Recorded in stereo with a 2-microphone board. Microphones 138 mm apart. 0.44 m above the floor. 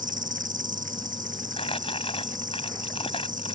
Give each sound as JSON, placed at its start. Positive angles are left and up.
{"t": 0.0, "sound": "an insect", "side_deg": -80}
{"t": 1.6, "sound": "crumpling", "side_deg": 45}